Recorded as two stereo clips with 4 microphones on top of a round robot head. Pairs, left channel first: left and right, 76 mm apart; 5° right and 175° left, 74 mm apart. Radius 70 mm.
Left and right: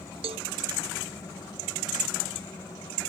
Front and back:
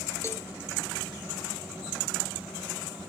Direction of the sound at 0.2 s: 70° right.